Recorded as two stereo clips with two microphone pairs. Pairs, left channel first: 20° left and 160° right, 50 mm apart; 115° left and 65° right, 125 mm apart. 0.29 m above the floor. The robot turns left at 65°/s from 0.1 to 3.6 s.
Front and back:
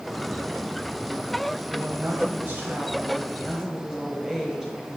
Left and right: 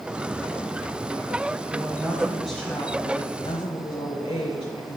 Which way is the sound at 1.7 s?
105° right.